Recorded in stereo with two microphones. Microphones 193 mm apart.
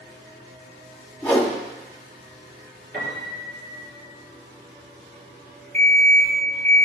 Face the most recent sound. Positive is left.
turn(degrees=10)  # may be behind; listen again after turning